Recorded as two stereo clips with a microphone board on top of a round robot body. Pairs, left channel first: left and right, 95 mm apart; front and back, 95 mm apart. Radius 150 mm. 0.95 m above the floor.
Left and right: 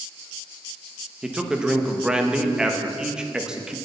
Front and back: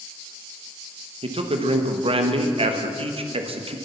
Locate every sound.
1.2 s a man speaking: 170° right, 1.4 m